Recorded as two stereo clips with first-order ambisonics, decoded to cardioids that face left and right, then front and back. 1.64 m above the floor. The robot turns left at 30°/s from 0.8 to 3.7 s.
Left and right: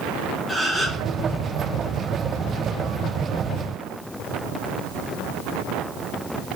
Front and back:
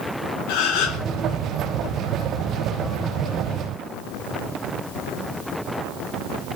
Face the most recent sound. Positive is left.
turn(degrees=-90)